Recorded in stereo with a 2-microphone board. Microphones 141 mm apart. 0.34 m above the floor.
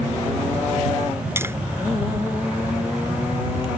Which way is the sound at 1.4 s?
20° right (ahead or behind).